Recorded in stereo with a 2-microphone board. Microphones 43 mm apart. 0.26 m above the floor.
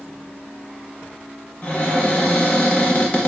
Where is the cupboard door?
35° left (ahead or behind), 0.7 m.